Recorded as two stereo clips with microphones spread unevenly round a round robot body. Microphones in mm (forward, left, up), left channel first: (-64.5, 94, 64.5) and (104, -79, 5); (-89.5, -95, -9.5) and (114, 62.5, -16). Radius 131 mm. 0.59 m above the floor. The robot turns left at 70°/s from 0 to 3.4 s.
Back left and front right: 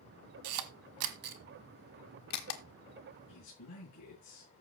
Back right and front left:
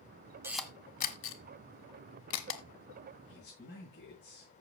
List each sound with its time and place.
0.4 s a camera shutter: 40° right, 1.6 m; by 2.6 s 165° left, 1.6 m
3.3 s a man speaking: 170° left, 7.5 m; by 4.5 s 165° left, 7.5 m